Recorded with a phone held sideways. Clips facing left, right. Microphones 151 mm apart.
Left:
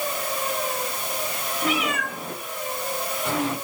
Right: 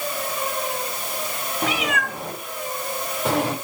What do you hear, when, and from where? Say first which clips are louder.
1.6 s a cat meowing: right 1 dB; 85° right, 3.5 m; by 3.5 s 70° right (ahead or behind), 1.8 m